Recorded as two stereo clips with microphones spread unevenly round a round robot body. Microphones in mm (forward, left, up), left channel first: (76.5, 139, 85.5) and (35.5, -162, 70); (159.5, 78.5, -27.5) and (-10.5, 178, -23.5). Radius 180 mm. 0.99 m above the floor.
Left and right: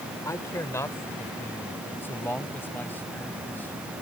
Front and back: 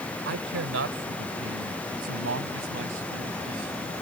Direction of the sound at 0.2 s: 165° left.